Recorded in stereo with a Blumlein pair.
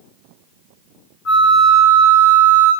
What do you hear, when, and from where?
1.2 s a flute: 35° left, 0.9 m